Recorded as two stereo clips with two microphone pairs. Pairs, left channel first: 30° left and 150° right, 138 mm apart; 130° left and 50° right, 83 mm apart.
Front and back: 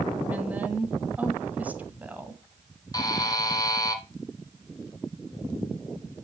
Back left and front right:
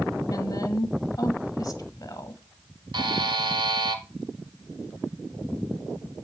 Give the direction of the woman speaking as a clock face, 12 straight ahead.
8 o'clock.